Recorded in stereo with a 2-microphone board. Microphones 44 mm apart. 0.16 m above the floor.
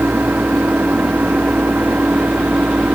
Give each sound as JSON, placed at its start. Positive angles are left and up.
{"t": 0.0, "sound": "an engine running", "side_deg": -45}